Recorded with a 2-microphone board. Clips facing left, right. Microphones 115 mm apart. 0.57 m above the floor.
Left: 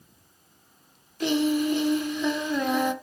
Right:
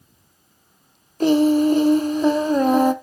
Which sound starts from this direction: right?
Singing, at 1.2 s.